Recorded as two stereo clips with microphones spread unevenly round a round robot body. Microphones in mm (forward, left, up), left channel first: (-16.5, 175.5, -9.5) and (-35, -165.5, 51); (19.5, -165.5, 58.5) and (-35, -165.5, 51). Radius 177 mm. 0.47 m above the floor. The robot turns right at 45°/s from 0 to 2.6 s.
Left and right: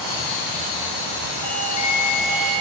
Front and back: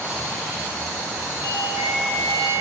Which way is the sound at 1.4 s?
110° left.